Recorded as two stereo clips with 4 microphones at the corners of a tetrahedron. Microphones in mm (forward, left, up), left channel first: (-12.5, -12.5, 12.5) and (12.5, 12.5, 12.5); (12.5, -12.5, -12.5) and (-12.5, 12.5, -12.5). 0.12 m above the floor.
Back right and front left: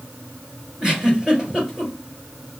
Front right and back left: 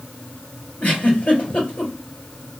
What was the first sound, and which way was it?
A giggle, 15° right.